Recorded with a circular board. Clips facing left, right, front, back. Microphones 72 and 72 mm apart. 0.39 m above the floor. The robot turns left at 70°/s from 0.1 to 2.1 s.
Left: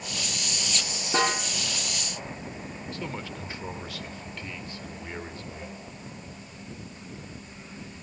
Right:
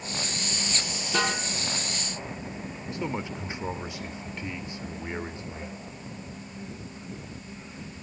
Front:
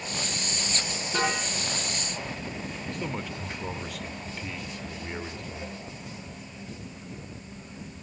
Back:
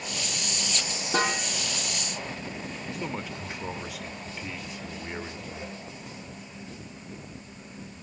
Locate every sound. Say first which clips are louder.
1.1 s a snare drum: left 2 dB, back 1 dB; 145° left, 6.5 m; by 1.4 s 130° left, 6.5 m
2.9 s a man speaking: right 5 dB, even; 100° right, 0.9 m